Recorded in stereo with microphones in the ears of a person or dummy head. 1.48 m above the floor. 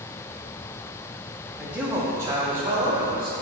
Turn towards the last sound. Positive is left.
turn(degrees=-25)  # may be behind; listen again after turning